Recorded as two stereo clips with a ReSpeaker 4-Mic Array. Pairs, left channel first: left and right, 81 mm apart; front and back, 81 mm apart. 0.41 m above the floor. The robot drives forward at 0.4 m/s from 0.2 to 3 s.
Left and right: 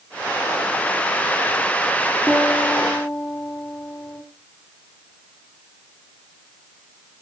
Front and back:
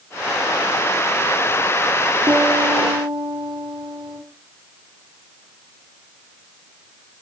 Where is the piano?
Straight behind, 10 m.